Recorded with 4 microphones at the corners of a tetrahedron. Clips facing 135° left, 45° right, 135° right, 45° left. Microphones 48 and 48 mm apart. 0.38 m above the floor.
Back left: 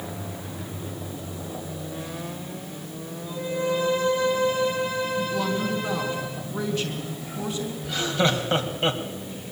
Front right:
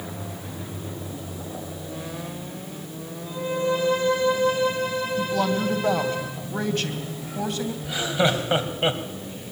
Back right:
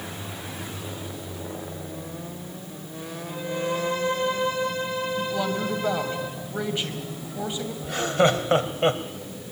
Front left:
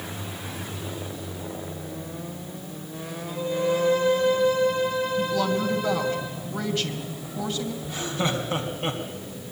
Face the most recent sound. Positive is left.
turn(degrees=-120)